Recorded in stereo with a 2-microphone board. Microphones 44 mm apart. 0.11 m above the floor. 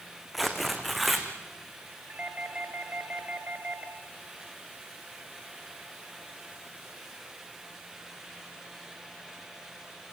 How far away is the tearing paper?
About 3 m.